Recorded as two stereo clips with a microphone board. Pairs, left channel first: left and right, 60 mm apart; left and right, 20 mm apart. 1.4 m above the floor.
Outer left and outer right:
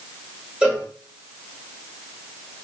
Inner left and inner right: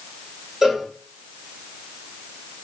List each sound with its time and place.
0.6 s a cowbell: 25° right (ahead or behind), 2 m